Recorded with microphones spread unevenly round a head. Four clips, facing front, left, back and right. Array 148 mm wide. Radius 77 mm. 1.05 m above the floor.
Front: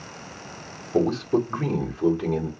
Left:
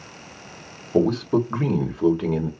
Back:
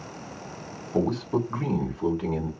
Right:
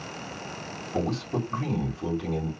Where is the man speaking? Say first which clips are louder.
Left 9 dB, front 4 dB; 70° left, 2.5 m.